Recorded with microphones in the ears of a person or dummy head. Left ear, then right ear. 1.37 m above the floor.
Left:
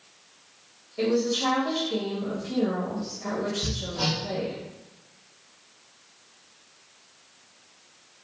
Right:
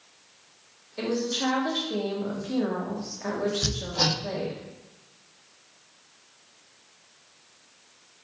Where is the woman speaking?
75° right (ahead or behind), 1.1 m.